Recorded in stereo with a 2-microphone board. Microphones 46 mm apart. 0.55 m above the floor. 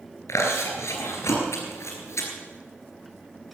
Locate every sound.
0.3 s chewing: 85° left, 3 m